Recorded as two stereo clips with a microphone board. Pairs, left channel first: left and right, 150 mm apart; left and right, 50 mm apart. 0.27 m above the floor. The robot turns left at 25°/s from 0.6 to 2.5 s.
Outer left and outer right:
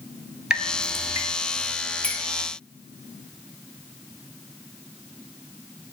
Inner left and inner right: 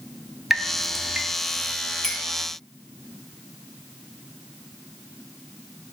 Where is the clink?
10° left (ahead or behind), 1.0 m; by 2.2 s 5° left (ahead or behind), 1.0 m.